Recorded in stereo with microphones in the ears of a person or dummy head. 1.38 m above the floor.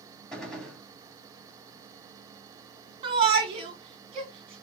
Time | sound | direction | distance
0.3 | a gunshot | centre (ahead or behind) | 2.5 m
3.0 | a shout | 25° right (ahead or behind) | 1.6 m